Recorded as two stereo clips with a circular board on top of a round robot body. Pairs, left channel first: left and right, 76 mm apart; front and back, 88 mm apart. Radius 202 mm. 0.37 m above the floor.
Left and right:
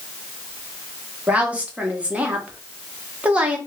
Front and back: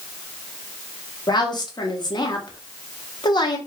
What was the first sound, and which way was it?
A woman speaking, 20° right.